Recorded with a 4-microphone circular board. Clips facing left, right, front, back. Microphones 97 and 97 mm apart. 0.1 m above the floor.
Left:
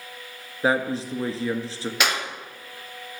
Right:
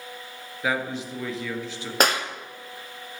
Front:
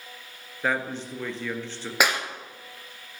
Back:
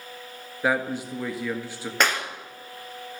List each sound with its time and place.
0.6 s a man speaking: 105° left, 1.6 m
2.0 s a clap: 75° right, 1.8 m